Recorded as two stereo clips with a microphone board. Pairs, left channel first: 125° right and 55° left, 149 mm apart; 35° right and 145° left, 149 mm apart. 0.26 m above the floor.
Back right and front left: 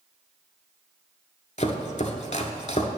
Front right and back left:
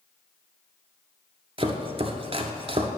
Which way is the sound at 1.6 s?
165° right.